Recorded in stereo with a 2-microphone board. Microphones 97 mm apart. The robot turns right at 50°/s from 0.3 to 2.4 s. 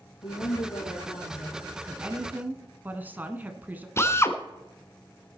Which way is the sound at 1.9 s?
20° right (ahead or behind).